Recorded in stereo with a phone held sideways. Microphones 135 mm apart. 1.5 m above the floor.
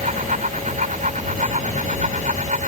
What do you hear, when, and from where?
0.0 s a fan: 75° right (ahead or behind)